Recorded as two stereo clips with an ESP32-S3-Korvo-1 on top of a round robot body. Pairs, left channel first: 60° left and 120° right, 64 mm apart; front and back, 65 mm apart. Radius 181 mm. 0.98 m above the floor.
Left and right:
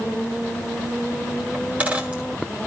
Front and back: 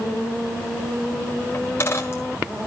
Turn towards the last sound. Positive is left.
turn(degrees=-50)